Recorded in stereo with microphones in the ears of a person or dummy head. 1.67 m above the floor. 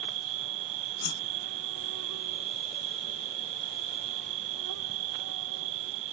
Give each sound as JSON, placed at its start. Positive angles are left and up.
{"t": 0.0, "sound": "an insect", "side_deg": -75}
{"t": 1.0, "sound": "a whoosh", "side_deg": 45}